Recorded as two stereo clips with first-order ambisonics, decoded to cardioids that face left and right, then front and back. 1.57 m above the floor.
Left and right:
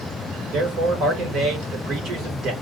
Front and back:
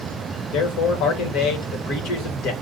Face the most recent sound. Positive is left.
turn(degrees=-35)